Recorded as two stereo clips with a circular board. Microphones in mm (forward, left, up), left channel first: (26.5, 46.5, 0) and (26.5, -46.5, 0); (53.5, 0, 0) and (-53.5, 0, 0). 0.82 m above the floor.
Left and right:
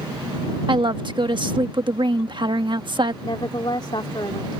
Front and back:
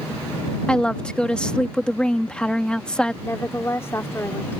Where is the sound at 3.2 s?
65° left.